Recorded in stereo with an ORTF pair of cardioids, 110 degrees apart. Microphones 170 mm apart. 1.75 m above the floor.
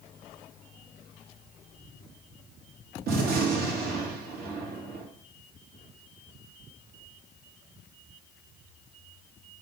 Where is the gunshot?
65° right, 1.1 m.